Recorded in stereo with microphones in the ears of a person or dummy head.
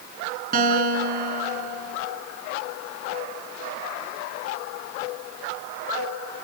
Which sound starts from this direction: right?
A guitar, at 0.5 s.